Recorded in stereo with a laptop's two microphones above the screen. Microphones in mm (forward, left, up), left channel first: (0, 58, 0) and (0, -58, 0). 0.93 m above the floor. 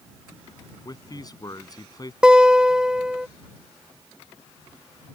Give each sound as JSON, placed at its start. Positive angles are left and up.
{"t": 0.8, "sound": "a man speaking", "side_deg": 35}
{"t": 2.2, "sound": "a guitar", "side_deg": -10}